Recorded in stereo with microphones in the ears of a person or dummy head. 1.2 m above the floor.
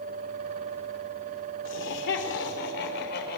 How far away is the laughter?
About 3.5 m.